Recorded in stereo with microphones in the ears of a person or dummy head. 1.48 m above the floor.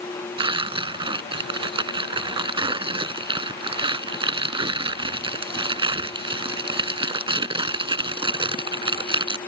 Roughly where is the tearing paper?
Right.